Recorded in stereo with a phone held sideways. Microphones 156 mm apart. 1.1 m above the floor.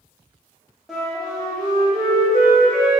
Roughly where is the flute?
Centre.